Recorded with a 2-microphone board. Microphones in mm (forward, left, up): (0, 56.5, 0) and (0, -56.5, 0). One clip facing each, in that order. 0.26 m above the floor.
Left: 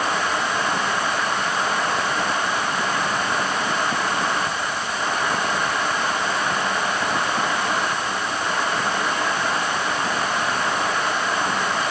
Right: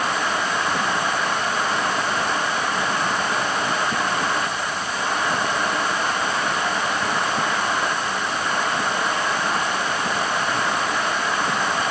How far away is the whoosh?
No whoosh in this recording.